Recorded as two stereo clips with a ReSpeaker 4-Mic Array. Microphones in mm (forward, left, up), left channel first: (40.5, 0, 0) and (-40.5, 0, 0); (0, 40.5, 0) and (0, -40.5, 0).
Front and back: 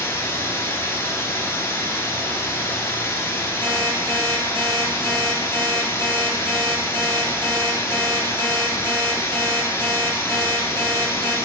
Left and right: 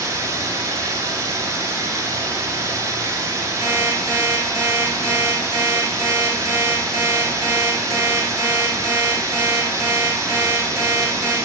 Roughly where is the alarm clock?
Behind.